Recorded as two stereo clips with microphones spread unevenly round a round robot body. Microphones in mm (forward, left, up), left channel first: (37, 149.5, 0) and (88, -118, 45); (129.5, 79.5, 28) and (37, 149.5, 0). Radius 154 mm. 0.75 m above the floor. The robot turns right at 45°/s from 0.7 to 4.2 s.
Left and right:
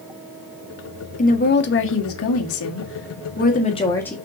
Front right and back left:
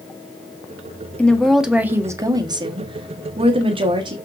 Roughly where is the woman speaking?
Ahead left.